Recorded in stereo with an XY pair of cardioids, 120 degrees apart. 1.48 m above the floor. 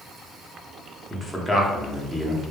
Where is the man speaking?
10° left, 0.8 m.